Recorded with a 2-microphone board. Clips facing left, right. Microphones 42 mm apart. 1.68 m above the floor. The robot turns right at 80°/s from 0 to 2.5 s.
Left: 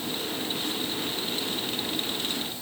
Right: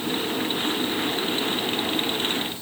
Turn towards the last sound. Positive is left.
No sound to turn to.